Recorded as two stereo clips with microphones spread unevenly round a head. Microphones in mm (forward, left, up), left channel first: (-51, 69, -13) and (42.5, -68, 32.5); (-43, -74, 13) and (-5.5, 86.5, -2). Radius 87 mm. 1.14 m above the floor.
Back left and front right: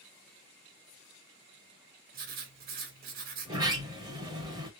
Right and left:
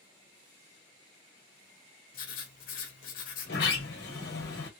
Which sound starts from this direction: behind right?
A sliding door, at 3.5 s.